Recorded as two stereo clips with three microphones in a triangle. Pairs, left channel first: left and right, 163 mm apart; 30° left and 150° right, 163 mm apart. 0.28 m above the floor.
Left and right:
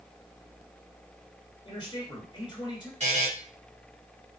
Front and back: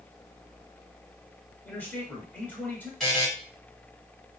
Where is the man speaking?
95° left, 1.6 m.